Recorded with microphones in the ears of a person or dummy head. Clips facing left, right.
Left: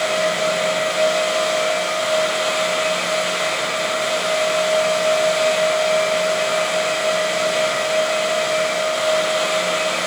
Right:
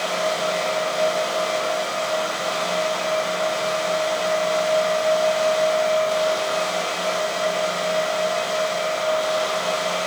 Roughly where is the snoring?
I don't hear snoring.